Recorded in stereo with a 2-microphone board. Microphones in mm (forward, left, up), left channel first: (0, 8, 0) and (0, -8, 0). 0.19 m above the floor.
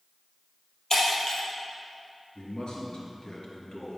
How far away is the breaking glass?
About 3 m.